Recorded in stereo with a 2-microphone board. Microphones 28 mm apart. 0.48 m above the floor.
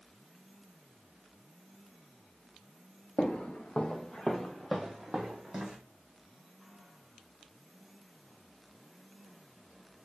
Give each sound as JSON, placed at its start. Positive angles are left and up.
{"t": 3.2, "sound": "footsteps", "side_deg": 55, "distance_m": 0.8}